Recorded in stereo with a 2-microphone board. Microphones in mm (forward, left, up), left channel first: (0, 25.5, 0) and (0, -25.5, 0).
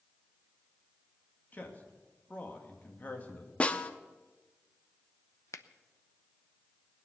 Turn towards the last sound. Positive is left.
turn(degrees=80)